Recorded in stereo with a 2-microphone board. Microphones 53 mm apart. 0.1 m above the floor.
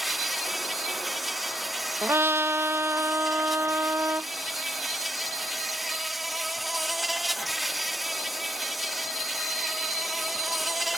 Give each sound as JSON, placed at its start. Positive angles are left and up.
{"t": 0.0, "sound": "an insect", "side_deg": 0}
{"t": 2.0, "sound": "a trumpet", "side_deg": -45}